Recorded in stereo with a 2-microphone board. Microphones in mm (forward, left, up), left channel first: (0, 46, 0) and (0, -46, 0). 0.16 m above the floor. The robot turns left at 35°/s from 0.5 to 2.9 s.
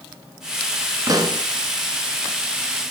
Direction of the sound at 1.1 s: 40° right (ahead or behind).